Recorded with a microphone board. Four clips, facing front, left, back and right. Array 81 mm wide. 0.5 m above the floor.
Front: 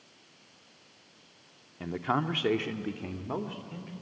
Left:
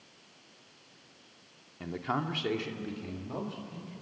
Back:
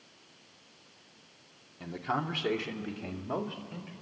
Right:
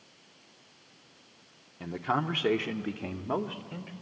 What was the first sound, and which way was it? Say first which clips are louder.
A man speaking: right 3 dB, front 3 dB; straight ahead.